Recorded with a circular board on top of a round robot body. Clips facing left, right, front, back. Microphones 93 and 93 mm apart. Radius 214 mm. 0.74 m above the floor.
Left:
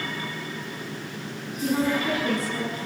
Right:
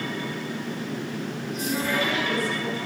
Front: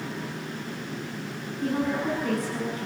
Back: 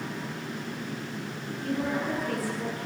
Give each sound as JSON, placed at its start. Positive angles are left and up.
{"t": 1.6, "sound": "a woman speaking", "azimuth_deg": 20, "distance_m": 8.5}